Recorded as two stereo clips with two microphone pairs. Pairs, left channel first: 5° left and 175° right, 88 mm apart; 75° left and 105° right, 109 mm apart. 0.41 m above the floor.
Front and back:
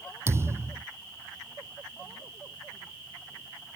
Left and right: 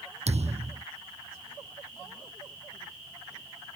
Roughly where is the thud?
Behind right.